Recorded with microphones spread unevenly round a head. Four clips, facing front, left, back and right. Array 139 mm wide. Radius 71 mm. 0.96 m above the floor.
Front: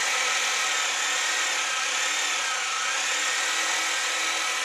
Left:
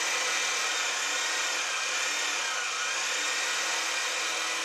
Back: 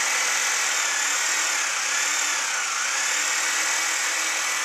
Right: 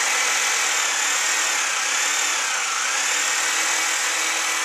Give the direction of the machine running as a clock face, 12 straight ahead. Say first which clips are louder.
Right 8 dB, back 1 dB; 3 o'clock.